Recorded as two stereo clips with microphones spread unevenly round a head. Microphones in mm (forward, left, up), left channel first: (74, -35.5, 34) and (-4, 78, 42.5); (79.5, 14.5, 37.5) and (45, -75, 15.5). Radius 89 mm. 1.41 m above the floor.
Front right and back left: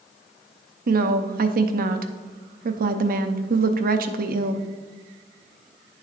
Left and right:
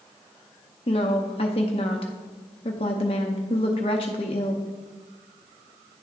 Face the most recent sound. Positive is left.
turn(degrees=115)